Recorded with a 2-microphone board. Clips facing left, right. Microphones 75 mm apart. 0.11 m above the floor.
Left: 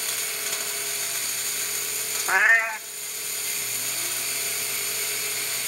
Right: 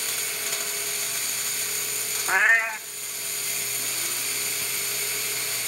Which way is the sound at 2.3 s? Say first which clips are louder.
Left 1 dB; 5° left (ahead or behind).